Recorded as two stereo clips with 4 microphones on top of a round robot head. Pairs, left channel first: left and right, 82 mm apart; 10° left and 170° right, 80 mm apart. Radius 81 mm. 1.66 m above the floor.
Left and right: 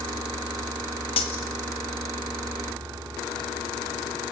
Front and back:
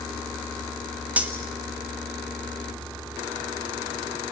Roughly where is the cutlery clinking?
Behind left.